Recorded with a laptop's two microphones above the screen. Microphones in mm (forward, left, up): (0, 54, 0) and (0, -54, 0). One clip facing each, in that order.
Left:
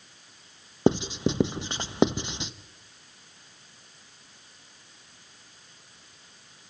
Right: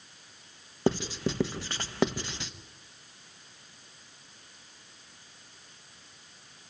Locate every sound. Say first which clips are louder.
0.9 s writing: left 5 dB; 20° left (ahead or behind), 0.9 m